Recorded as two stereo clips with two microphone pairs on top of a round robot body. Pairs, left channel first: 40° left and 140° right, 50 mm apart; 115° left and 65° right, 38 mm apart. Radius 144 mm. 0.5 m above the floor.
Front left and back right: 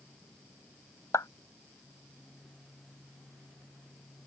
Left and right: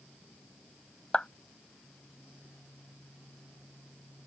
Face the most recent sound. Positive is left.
turn(degrees=55)